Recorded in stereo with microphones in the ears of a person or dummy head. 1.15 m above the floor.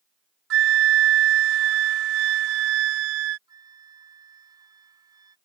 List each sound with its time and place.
0.5 s a flute: 70° right (ahead or behind)
3.5 s a flute: 20° right (ahead or behind)